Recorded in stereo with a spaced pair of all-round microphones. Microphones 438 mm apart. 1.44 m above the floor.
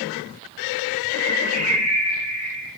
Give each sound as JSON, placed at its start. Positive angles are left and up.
{"t": 1.1, "sound": "a bird", "side_deg": -40, "distance_m": 9.0}